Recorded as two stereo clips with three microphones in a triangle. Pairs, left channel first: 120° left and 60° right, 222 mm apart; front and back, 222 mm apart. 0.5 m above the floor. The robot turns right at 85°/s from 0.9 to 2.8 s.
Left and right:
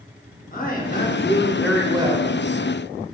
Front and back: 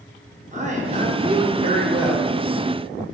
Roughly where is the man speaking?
Behind left.